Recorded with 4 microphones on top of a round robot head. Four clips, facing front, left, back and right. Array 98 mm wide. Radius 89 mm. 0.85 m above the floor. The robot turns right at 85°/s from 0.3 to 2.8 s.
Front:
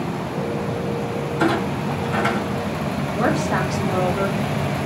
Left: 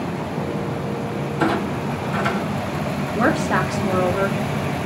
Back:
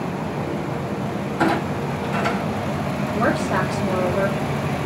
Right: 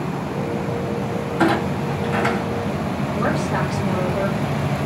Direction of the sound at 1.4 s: 120° right.